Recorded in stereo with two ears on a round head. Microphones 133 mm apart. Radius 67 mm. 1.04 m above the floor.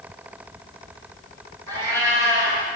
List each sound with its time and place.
1.7 s a cat meowing: 15° left (ahead or behind), 5 m